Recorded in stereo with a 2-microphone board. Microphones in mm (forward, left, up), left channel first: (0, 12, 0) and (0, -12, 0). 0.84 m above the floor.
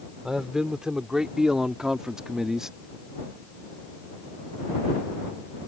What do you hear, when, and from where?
0.2 s a man speaking: 30° right (ahead or behind); by 2.7 s 25° right (ahead or behind)